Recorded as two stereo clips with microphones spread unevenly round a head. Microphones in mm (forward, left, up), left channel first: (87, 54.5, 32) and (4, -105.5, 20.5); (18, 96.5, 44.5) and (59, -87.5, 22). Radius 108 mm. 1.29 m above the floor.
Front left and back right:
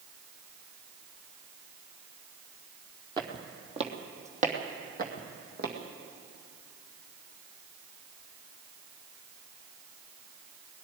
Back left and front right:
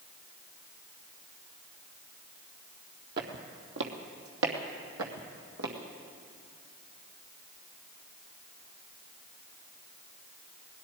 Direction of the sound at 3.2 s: 55° right.